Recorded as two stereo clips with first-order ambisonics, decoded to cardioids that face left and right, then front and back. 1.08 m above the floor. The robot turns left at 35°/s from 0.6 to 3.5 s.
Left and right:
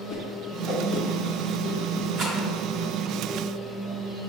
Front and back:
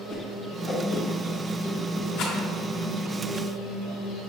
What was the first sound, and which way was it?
A whoosh, 30° right.